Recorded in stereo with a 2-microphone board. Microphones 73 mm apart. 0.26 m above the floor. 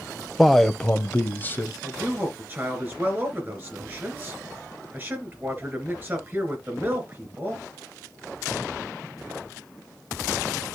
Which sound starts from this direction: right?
A man speaking, at 1.8 s.